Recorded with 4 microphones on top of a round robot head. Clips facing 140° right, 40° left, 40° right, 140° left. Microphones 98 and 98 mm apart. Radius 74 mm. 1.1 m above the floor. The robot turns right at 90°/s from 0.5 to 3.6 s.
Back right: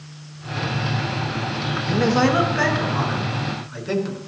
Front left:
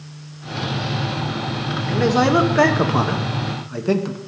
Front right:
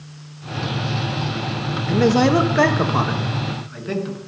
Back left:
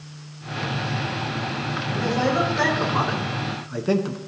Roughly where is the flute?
I don't hear a flute.